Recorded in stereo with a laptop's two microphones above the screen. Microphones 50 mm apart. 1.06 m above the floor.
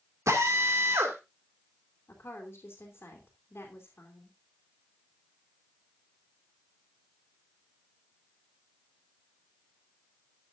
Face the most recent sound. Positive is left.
turn(degrees=55)  # may be behind; listen again after turning